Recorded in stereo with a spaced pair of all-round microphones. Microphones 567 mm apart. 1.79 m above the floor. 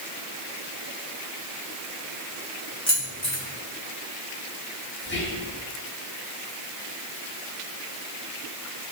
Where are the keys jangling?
25° left (ahead or behind), 1.5 m.